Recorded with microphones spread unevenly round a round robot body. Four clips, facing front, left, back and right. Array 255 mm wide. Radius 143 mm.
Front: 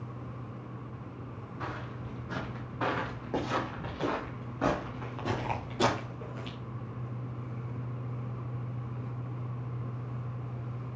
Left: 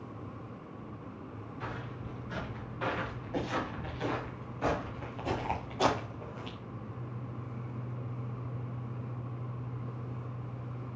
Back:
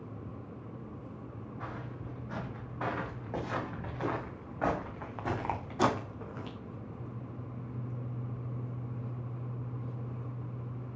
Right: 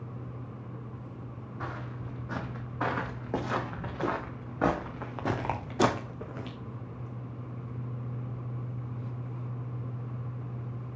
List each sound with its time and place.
1.6 s footsteps: 60° right, 4.5 m; by 6.6 s 115° right, 1.3 m